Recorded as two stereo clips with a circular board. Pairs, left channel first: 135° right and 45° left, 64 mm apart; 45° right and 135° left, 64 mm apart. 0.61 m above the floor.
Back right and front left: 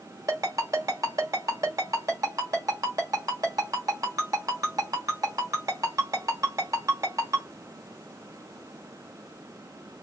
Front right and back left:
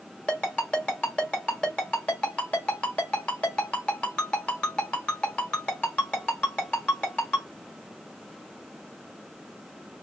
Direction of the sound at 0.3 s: 25° left.